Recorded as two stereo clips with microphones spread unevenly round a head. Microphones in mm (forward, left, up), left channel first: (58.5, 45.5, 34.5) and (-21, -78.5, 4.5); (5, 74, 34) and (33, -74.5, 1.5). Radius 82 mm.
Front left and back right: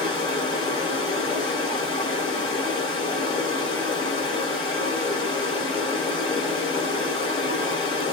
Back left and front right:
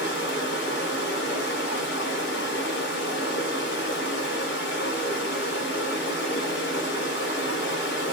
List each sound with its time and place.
0.0 s running water: 115° left, 1.5 m